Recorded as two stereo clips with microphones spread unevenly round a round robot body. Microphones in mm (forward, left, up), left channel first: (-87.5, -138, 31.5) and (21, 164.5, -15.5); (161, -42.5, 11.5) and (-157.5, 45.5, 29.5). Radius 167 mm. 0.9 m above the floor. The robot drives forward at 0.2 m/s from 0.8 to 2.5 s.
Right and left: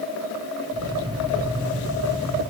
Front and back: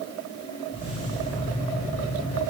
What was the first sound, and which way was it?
Only background noise.